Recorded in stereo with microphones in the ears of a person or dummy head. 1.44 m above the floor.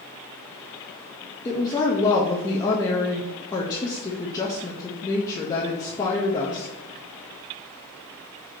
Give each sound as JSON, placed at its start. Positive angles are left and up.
{"t": 1.4, "sound": "a woman speaking", "side_deg": 15, "distance_m": 0.5}